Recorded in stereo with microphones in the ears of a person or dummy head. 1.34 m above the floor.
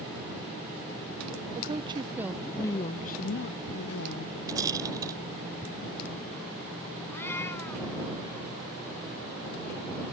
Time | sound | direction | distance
1.6 | a woman speaking | 25° right (ahead or behind) | ?
4.5 | a rattle | 25° right (ahead or behind) | ?
7.1 | a cat meowing | 15° left (ahead or behind) | ?